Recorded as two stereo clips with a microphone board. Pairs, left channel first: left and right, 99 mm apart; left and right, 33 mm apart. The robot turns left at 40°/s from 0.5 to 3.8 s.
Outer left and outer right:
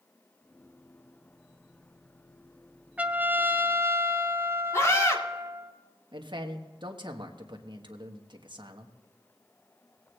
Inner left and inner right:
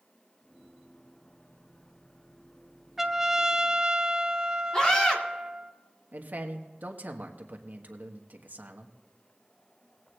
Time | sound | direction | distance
3.0 | a trumpet | 15° right (ahead or behind) | 0.6 m
4.7 | a scream | 30° left (ahead or behind) | 2 m
6.1 | a man speaking | 50° right (ahead or behind) | 1.3 m